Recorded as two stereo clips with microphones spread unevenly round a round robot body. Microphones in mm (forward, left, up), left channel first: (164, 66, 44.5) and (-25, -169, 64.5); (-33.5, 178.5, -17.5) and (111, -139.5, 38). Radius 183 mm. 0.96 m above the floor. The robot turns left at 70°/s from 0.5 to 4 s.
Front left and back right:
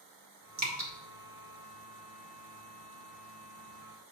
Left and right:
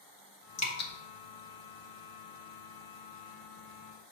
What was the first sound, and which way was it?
Dripping, 175° left.